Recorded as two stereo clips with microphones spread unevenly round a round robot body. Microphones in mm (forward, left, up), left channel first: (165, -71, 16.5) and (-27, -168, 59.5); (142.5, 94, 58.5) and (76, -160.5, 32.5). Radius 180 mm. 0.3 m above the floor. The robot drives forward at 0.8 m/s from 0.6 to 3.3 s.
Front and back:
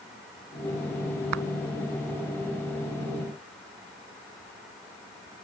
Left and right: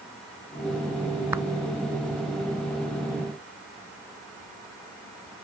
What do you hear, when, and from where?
1.3 s a clap: 175° left